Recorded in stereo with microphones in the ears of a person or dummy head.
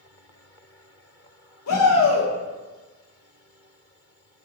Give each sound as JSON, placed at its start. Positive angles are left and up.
{"t": 1.7, "sound": "a shout", "side_deg": 80, "distance_m": 1.0}